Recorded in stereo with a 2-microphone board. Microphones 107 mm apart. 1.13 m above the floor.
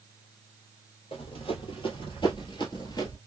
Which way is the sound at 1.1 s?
60° left (ahead or behind).